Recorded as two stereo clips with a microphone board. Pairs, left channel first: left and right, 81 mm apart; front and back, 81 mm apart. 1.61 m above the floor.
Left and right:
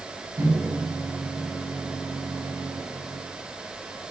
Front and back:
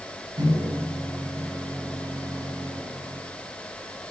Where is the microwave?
135° right, 7.5 m.